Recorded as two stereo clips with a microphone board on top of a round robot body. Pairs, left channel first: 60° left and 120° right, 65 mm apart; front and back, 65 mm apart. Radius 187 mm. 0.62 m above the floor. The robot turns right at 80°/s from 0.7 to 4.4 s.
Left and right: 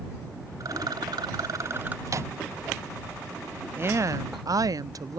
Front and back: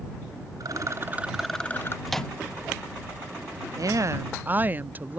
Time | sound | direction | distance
0.6 | a rattle | 150° right | ?
2.1 | a microwave | 90° right | ?
3.8 | a woman speaking | 175° right | ?